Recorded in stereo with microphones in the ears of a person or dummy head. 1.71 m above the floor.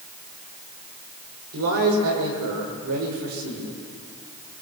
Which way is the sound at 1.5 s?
80° right.